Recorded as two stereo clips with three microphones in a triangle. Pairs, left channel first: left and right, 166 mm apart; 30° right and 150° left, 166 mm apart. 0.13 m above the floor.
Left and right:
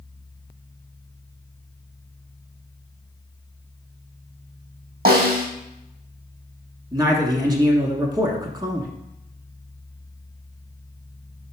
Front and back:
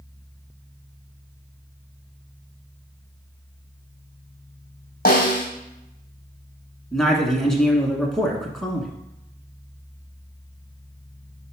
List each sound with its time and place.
5.0 s a snare drum: 60° right, 1.4 m
6.9 s a man speaking: 115° right, 1.1 m